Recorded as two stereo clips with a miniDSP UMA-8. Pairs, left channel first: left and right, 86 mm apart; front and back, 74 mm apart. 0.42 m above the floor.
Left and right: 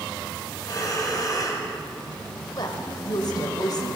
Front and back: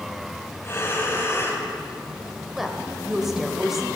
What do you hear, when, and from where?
0.6 s breathing: 50° left, 2 m
2.5 s a woman speaking: 95° left, 1.6 m